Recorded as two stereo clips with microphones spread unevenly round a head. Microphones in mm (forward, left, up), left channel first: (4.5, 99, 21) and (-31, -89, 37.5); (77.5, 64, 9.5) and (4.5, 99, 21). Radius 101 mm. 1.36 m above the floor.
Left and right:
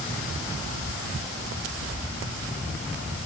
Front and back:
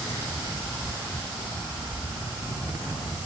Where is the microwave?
No microwave in this recording.